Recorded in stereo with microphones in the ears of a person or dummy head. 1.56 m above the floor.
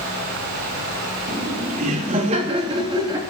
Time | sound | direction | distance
1.3 | laughter | 50° right (ahead or behind) | 3.5 m